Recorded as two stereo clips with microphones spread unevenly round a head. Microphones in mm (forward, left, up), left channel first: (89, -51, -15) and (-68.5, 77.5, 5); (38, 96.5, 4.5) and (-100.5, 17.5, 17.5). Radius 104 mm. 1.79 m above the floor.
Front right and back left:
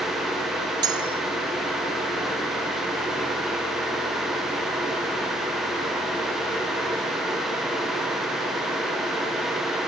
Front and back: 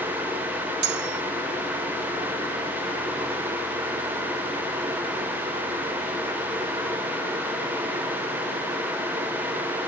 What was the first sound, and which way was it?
Cutlery clinking, 150° right.